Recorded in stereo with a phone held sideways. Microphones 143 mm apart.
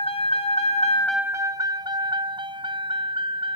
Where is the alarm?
No alarm in this recording.